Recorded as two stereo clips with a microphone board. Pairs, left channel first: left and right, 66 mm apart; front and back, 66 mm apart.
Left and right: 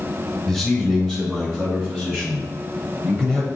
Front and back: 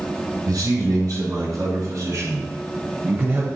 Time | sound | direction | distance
0.5 | a man speaking | 170° left | 2.5 m